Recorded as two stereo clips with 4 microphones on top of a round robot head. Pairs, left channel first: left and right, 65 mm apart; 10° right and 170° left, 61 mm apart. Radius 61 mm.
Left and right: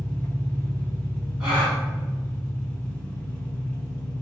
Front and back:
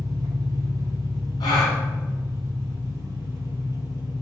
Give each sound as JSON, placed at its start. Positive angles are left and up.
{"t": 0.0, "sound": "an engine running", "azimuth_deg": 160, "distance_m": 0.9}
{"t": 1.4, "sound": "a gasp", "azimuth_deg": -5, "distance_m": 1.5}